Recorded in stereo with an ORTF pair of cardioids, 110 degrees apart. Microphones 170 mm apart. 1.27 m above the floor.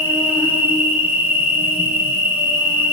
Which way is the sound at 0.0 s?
10° right.